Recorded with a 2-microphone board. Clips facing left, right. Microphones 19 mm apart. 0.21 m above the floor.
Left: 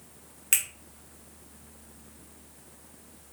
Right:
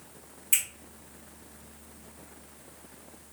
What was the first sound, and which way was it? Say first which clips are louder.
A finger snap: left 2 dB; 55° left (ahead or behind).